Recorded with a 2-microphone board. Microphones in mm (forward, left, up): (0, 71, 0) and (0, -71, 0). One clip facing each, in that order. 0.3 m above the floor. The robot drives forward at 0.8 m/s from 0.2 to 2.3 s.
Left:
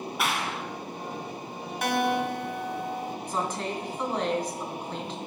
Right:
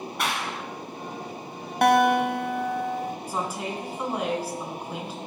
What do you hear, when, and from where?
0.2 s a clap: centre (ahead or behind), 1.7 m; by 0.6 s 5° left (ahead or behind), 1.4 m
1.8 s a guitar: 55° right (ahead or behind), 1.0 m; by 3.1 s 60° right (ahead or behind), 1.0 m
3.3 s a woman speaking: 10° right (ahead or behind), 2.5 m